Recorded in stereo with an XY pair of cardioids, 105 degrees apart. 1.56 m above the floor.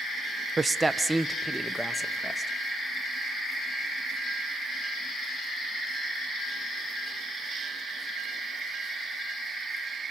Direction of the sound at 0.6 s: 30° right.